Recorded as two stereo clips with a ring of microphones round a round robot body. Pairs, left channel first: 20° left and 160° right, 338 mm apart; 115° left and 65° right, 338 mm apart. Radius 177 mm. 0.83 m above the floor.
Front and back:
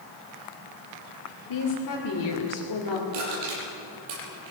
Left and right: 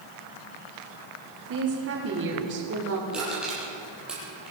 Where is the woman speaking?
15° right, 3 m.